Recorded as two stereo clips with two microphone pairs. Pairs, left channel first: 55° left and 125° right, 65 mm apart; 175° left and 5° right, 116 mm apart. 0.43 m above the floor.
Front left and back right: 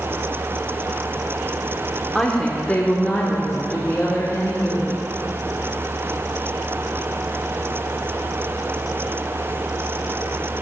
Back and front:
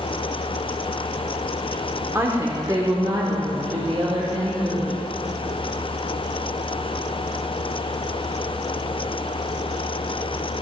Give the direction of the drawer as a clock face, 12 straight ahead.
No drawer in this recording.